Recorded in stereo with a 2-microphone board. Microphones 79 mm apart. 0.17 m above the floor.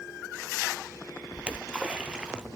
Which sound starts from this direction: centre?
A splash, at 1.3 s.